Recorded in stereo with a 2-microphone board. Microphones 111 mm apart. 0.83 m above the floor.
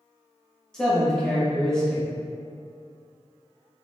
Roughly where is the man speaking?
Centre.